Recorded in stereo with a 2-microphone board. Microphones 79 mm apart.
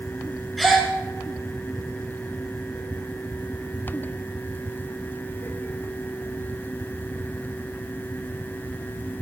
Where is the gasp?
Centre (ahead or behind), 2.5 m.